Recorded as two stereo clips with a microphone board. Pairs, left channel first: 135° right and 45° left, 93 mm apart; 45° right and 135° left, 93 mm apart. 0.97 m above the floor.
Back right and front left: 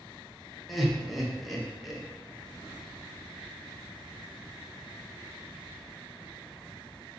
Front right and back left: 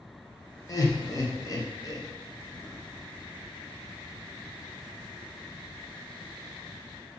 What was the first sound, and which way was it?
Laughter, 45° right.